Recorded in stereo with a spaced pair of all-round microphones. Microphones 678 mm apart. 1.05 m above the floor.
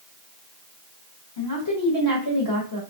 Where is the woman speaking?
35° left (ahead or behind), 1.0 m.